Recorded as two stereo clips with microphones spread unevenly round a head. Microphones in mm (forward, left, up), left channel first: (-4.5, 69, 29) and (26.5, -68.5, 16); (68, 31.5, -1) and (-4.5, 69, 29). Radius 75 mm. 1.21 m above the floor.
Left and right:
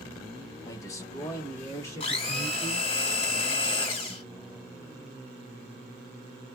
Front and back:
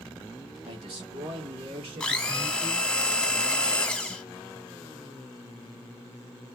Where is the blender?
60° left, 1.2 m.